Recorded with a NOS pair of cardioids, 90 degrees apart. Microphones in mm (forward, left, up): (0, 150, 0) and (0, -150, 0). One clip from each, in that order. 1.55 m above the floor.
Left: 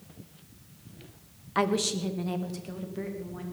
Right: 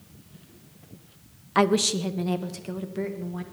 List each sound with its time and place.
1.6 s a woman speaking: 25° right, 0.9 m; by 3.4 s 30° right, 3 m